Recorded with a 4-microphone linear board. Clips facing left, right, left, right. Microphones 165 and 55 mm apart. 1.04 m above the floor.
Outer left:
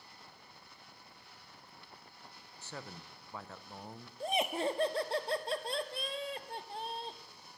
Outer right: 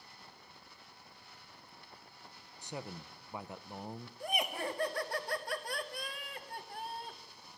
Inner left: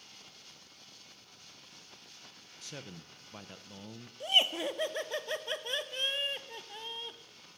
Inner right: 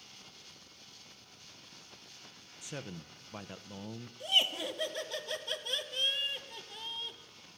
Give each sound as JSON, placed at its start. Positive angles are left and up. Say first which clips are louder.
{"t": 2.6, "sound": "a man speaking", "louder": "outer right 4 dB, inner right 3 dB", "side_deg": -15, "distance_m": 0.5}
{"t": 4.2, "sound": "laughter", "louder": "outer left 4 dB, inner left 2 dB", "side_deg": 25, "distance_m": 1.1}